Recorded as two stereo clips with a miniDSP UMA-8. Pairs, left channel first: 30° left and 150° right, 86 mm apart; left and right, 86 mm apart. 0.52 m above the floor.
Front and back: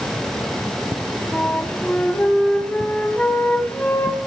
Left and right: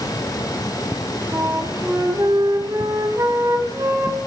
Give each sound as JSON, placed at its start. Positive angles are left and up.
{"t": 1.3, "sound": "a flute", "azimuth_deg": -45, "distance_m": 3.5}